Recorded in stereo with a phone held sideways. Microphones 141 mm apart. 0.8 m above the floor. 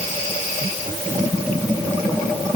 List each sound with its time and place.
Only background noise.